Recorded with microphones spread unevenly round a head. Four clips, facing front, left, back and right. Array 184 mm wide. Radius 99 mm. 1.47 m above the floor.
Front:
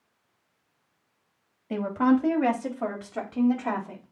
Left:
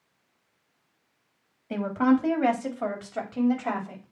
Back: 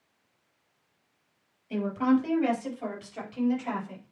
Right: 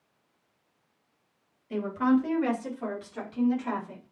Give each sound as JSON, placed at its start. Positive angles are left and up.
{"t": 1.7, "sound": "a woman speaking", "azimuth_deg": 40, "distance_m": 3.0}